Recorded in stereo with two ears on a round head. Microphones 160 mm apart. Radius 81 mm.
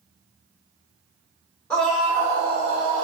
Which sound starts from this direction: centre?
A scream, at 1.7 s.